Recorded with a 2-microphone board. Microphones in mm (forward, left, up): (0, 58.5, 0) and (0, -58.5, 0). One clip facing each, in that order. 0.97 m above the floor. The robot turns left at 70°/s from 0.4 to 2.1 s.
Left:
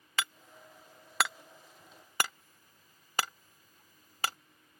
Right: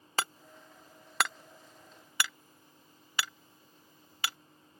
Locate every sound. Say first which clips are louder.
0.2 s hammering: right 3 dB; 40° right (ahead or behind); by 4.4 s 40° left (ahead or behind)